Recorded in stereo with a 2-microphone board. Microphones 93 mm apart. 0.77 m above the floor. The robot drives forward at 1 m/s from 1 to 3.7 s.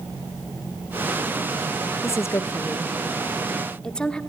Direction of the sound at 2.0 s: 30° left (ahead or behind).